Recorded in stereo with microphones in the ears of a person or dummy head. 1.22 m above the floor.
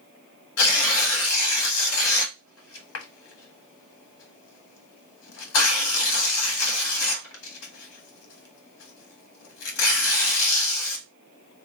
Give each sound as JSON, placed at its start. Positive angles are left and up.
{"t": 0.6, "sound": "tearing paper", "side_deg": 80, "distance_m": 1.4}